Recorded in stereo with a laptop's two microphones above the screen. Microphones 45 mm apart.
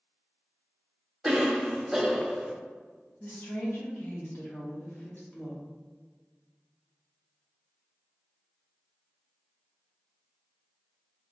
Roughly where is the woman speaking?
Left.